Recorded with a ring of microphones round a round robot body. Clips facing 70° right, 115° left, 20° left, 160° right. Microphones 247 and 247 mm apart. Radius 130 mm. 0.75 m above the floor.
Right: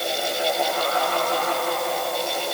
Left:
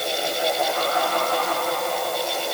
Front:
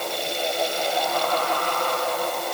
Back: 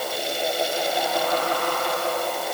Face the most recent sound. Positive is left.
No sound to turn to.